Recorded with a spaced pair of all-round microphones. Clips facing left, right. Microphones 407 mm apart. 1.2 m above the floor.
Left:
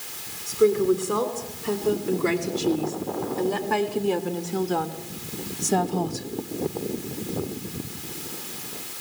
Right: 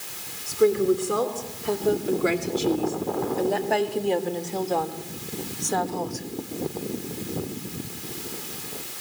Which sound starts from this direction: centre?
A woman speaking, at 0.5 s.